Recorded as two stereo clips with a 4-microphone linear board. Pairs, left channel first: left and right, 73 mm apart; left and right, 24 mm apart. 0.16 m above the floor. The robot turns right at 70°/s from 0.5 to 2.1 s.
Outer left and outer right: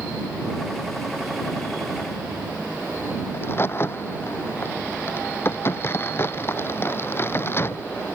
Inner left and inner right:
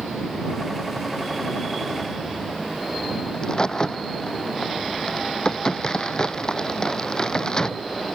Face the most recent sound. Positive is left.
turn(degrees=35)  # may be behind; listen again after turning